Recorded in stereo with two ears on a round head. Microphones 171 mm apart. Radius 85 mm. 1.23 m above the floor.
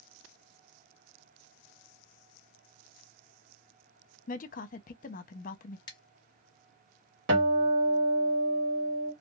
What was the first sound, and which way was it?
A woman speaking, 45° left (ahead or behind).